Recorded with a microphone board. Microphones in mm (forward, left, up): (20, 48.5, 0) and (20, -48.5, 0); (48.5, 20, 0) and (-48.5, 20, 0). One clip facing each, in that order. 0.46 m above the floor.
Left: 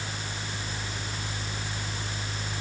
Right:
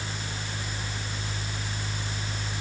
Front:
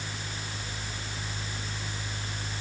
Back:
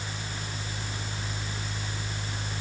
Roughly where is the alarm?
No alarm in this recording.